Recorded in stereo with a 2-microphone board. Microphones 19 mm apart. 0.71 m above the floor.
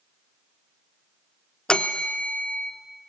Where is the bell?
65° left (ahead or behind), 1.0 m.